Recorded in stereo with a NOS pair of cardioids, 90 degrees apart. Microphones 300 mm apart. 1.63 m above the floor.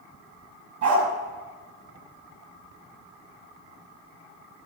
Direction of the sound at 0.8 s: 65° right.